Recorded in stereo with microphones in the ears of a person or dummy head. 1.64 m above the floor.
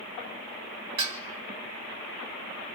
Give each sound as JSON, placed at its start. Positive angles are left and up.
{"t": 1.0, "sound": "dishes clattering", "side_deg": -35, "distance_m": 1.4}